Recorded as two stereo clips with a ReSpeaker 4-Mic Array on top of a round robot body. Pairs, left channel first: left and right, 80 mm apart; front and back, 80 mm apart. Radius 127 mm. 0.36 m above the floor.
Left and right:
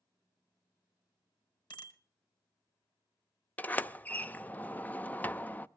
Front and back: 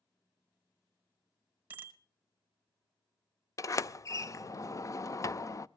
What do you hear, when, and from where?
1.7 s a bicycle bell: 115° left, 2.5 m
3.6 s a sliding door: 30° left, 0.7 m